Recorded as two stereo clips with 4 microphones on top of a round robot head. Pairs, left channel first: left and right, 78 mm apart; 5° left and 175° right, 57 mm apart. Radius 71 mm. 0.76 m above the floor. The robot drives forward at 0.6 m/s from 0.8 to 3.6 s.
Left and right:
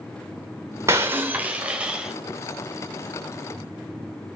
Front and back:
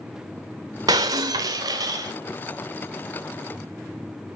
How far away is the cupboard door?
No cupboard door in this recording.